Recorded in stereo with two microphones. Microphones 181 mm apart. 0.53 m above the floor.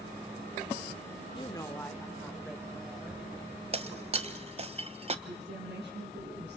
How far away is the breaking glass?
About 0.8 m.